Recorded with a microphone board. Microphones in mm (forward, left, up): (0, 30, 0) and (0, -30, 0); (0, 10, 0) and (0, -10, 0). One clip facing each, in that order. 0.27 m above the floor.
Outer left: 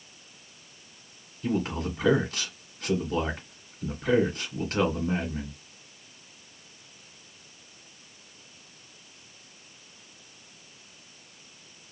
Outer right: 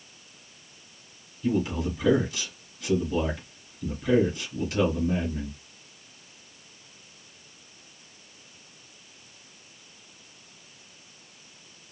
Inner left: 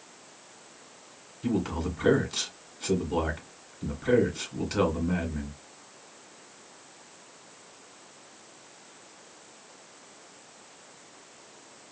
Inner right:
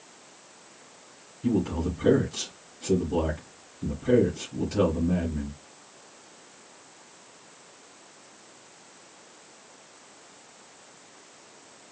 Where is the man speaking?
50° left (ahead or behind), 2.5 m.